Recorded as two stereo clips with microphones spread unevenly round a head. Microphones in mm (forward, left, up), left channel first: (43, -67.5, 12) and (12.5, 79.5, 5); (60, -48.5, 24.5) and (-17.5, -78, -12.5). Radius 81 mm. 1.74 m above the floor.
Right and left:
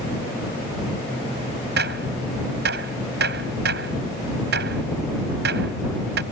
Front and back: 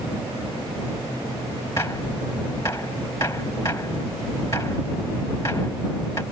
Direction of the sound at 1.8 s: 90° left.